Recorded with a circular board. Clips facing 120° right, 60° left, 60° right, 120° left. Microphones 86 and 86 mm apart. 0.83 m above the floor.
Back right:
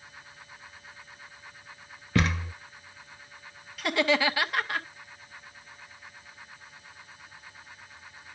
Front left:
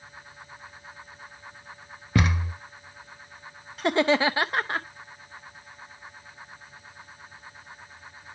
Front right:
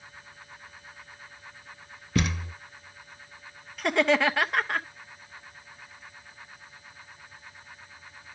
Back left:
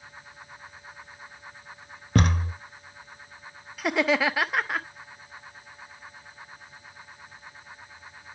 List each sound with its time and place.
2.1 s a thud: 130° left, 0.9 m
3.8 s laughter: 35° left, 0.6 m